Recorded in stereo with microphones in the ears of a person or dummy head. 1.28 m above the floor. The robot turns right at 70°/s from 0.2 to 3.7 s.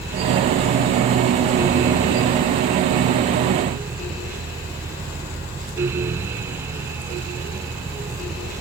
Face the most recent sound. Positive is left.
No sound to turn to.